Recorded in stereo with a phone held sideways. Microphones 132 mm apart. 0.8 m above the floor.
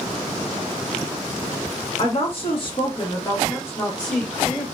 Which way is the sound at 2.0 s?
45° left (ahead or behind).